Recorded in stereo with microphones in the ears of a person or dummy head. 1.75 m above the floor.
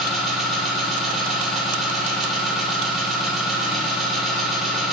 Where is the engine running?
5° right (ahead or behind), 1.6 m.